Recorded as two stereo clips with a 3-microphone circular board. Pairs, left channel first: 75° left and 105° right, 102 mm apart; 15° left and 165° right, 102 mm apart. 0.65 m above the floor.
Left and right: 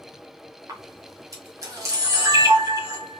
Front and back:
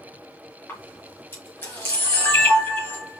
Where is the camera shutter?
50° right, 2 m.